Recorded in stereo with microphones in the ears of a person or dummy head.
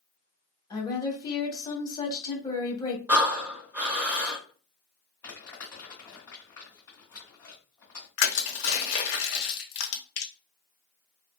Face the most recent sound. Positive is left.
turn(degrees=75)  # may be behind; listen again after turning